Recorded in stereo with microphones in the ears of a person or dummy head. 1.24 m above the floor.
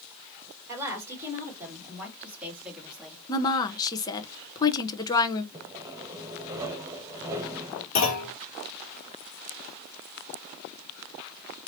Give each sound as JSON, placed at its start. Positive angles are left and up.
{"t": 0.7, "sound": "a woman speaking", "side_deg": -20, "distance_m": 3.5}
{"t": 3.3, "sound": "a woman speaking", "side_deg": 15, "distance_m": 1.0}
{"t": 5.5, "sound": "sawing", "side_deg": -10, "distance_m": 1.1}
{"t": 8.0, "sound": "a clunk", "side_deg": 50, "distance_m": 2.5}